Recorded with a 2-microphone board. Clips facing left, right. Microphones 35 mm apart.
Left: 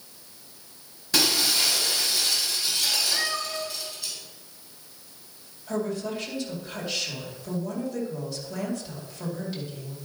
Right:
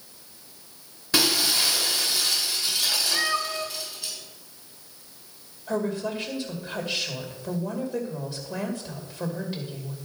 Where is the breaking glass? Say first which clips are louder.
Right 1 dB; 10° right (ahead or behind), 3 m.